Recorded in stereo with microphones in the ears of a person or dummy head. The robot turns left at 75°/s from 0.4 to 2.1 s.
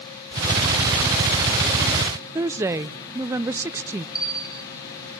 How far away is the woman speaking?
About 0.5 m.